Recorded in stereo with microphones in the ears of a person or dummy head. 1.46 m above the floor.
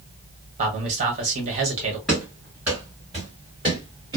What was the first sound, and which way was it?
A man speaking, 40° right (ahead or behind).